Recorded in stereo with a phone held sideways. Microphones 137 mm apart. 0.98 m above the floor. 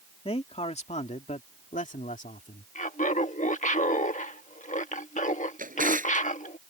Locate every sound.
0.2 s a man speaking: 50° left (ahead or behind); by 2.6 s 75° left (ahead or behind)
2.8 s laughter: 65° left (ahead or behind)
5.6 s a drawer: 85° right